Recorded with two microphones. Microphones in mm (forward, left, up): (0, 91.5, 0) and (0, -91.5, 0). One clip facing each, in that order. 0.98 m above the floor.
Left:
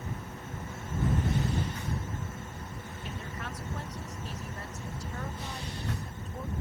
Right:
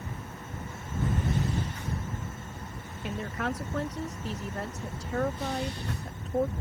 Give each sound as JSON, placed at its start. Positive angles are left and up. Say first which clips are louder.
{"t": 3.0, "sound": "a woman speaking", "louder": "right 10 dB", "side_deg": -70}